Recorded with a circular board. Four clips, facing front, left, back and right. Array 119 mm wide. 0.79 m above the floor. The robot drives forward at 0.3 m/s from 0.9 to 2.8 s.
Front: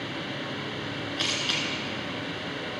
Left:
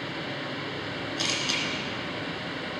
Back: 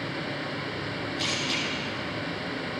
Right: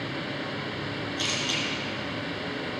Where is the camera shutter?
15° left, 2 m.